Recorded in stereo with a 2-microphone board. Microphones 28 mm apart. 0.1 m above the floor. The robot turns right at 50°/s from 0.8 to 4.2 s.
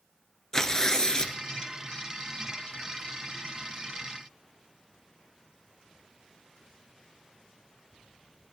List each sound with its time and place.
0.5 s tearing paper: 20° left (ahead or behind), 0.9 m; by 1.4 s 35° left (ahead or behind), 0.9 m